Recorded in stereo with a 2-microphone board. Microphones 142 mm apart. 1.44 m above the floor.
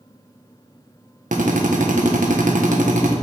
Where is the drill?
75° right (ahead or behind), 1.2 m.